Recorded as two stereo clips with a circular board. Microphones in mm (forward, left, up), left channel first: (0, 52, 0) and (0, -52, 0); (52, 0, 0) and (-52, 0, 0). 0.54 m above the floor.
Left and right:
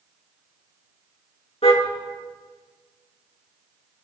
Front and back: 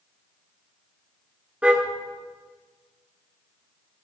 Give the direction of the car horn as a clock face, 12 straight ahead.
9 o'clock.